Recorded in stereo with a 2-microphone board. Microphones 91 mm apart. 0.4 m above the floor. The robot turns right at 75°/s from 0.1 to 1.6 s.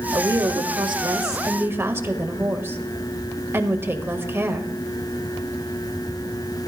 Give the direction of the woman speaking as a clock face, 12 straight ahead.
5 o'clock.